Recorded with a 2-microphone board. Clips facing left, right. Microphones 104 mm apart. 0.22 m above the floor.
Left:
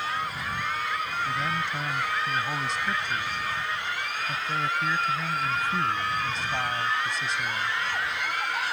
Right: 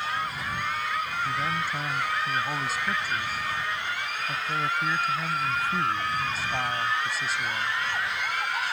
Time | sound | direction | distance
1.2 | a man speaking | 5° right (ahead or behind) | ?